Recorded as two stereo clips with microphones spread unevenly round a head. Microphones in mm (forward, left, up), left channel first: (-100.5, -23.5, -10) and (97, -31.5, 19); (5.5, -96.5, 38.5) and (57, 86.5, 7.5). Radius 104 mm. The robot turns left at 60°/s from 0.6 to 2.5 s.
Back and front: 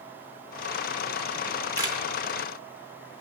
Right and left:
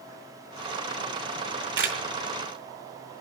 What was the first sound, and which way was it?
A camera shutter, 100° left.